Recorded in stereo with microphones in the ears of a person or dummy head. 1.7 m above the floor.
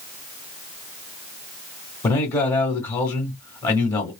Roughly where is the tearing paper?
I don't hear tearing paper.